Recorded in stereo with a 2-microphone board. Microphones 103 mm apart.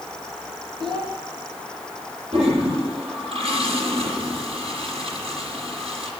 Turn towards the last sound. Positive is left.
turn(degrees=-80)